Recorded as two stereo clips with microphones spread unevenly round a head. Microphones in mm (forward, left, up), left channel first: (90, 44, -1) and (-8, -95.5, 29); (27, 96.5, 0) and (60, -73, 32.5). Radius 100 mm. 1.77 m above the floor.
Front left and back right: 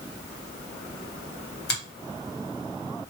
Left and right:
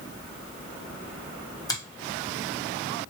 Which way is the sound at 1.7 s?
30° left.